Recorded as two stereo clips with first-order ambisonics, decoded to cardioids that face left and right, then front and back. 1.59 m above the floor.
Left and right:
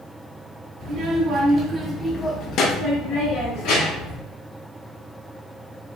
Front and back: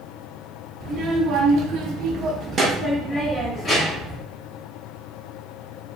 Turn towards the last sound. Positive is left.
turn(degrees=75)